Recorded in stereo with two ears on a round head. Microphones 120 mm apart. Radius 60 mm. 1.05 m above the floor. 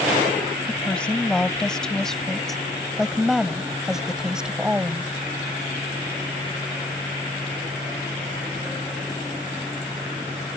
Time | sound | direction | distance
0.7 | a woman speaking | 10° left (ahead or behind) | ?